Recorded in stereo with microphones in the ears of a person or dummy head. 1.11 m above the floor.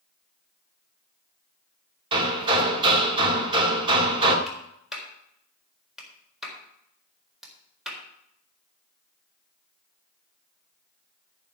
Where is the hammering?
30° right (ahead or behind), 2 m.